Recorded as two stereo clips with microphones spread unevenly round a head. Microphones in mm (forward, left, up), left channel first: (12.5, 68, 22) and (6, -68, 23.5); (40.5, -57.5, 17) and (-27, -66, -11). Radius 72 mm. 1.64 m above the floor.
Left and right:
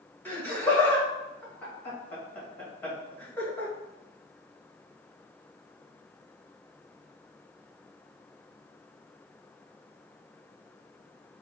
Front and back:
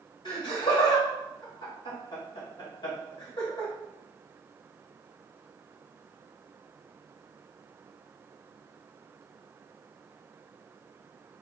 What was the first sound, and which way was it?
Laughter, 10° left.